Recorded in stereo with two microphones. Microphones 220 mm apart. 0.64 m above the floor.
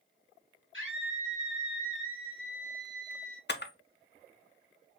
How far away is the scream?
About 2 m.